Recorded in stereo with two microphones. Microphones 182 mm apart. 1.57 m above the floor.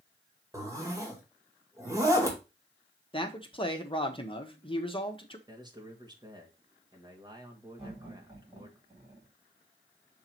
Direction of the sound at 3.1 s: 30° left (ahead or behind).